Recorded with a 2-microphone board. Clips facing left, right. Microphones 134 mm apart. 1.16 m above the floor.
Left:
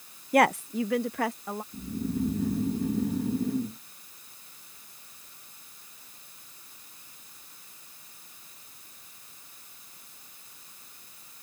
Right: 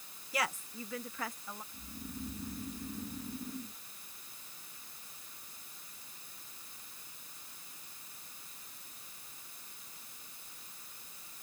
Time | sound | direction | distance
0.3 | a woman speaking | 55° left (ahead or behind) | ?
1.7 | snoring | 85° left | ?